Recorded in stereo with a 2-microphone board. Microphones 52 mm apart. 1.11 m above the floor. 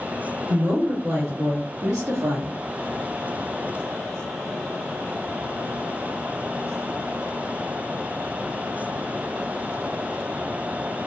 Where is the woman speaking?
45° right (ahead or behind), 1.3 m; by 2.6 s 80° right, 0.7 m.